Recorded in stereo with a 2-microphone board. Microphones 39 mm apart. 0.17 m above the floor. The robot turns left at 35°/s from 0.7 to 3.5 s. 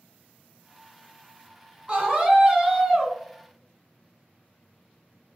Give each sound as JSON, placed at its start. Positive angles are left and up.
{"t": 1.9, "sound": "a scream", "side_deg": -25, "distance_m": 1.1}